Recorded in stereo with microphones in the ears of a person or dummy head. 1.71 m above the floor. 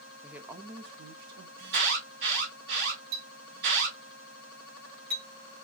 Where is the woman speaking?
5° right (ahead or behind), 0.6 m; by 1.5 s 70° right (ahead or behind), 0.8 m.